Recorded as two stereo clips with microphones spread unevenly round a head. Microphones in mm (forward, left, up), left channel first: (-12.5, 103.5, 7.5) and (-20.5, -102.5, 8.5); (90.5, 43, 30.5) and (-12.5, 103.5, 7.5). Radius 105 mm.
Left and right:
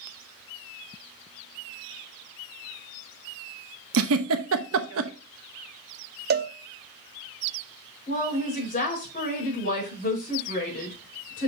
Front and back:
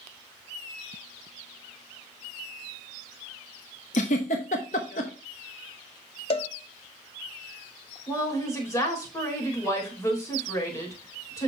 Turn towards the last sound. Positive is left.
turn(degrees=35)